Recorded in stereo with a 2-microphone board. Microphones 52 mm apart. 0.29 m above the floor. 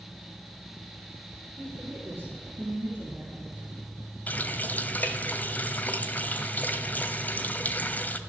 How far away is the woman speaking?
About 4.5 m.